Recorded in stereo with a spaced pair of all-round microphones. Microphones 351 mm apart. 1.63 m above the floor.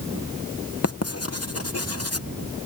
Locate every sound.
0.8 s writing: 45° left (ahead or behind)